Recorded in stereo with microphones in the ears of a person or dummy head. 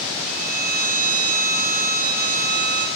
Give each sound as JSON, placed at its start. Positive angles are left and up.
{"t": 0.3, "sound": "a violin", "side_deg": -45, "distance_m": 3.5}